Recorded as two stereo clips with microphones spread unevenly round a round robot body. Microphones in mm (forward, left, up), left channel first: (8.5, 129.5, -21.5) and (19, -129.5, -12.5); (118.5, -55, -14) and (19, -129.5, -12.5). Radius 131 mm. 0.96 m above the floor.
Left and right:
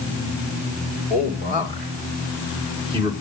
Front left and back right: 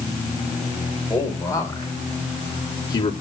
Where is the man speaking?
30° right, 5 m; by 3.1 s 15° right, 2.5 m.